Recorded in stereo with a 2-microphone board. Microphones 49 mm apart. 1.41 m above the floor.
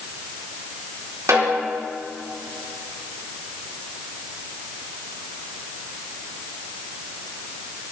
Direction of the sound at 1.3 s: 80° right.